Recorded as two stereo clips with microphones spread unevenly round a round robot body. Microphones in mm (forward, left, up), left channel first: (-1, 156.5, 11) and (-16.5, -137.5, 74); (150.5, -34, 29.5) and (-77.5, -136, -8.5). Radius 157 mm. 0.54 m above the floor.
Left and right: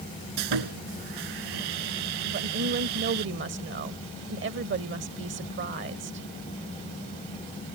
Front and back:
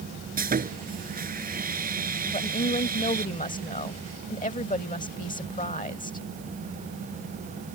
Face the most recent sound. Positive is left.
turn(degrees=-35)